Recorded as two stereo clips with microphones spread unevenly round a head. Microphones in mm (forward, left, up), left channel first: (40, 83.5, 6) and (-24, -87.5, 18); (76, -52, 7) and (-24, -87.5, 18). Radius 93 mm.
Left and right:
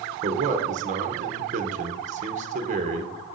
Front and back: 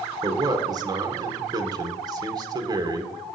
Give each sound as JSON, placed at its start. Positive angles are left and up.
{"t": 0.2, "sound": "a man speaking", "azimuth_deg": -135, "distance_m": 0.8}